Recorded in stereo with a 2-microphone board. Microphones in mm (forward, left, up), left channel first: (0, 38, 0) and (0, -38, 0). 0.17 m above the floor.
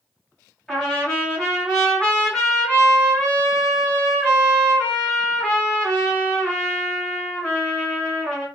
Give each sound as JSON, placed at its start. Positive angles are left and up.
{"t": 0.7, "sound": "a trumpet", "side_deg": 5, "distance_m": 2.0}